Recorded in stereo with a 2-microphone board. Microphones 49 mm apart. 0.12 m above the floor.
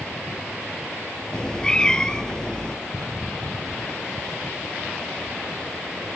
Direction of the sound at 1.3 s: 15° left (ahead or behind).